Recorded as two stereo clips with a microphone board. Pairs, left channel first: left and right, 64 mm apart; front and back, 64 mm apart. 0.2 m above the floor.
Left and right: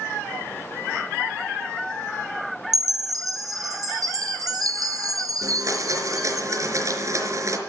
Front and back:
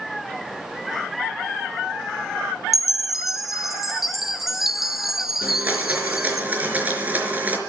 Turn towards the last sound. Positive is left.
turn(degrees=-120)